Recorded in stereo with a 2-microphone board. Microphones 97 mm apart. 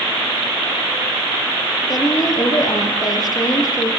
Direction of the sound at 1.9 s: 45° left (ahead or behind).